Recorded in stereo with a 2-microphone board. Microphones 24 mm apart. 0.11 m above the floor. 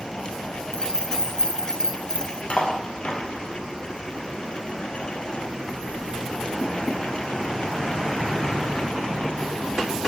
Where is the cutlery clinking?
55° left (ahead or behind), 1.4 m.